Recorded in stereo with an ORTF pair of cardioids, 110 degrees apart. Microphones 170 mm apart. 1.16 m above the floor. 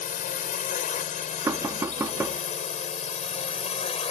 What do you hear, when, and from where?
0.0 s a drone: 55° left; by 4.1 s 40° left
1.5 s knocking: 15° right